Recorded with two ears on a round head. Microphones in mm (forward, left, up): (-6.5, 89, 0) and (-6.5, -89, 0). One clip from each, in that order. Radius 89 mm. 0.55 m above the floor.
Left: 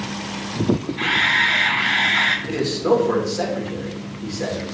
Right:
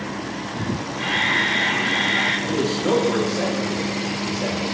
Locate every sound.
1.0 s a camera shutter: 55° left (ahead or behind), 1.4 m
2.5 s a man speaking: 30° left (ahead or behind), 1.2 m